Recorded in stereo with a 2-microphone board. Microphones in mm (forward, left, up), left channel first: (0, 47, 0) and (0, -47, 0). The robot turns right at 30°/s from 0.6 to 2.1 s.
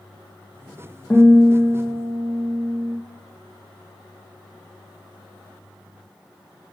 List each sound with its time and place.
1.1 s a guitar: 10° left (ahead or behind), 3 m; by 3.0 s 20° right (ahead or behind), 3 m